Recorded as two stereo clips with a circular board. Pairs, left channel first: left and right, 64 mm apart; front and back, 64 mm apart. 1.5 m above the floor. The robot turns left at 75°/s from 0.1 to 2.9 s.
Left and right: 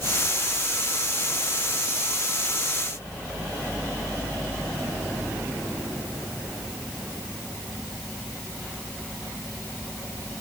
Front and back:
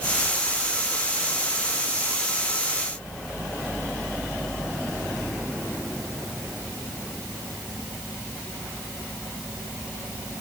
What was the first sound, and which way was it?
Only background noise.